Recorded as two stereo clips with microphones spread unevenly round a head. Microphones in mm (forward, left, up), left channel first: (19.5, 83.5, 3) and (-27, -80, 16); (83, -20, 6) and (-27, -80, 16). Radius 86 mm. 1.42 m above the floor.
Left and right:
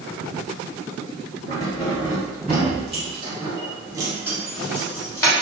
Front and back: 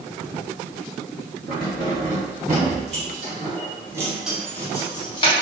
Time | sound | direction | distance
1.5 | keys jangling | 160° right | 1.9 m